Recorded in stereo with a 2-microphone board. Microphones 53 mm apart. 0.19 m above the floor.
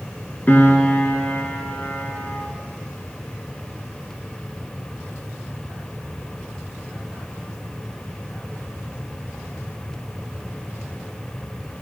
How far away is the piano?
About 1.2 m.